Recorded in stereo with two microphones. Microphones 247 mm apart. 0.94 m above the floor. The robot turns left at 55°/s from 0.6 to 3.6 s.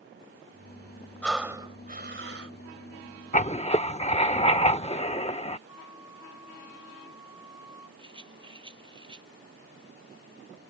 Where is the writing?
30° left (ahead or behind); by 5.6 s 25° left (ahead or behind).